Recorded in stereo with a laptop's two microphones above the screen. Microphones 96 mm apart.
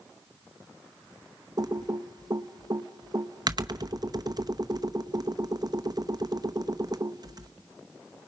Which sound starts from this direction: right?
Typing on a keyboard, at 1.6 s.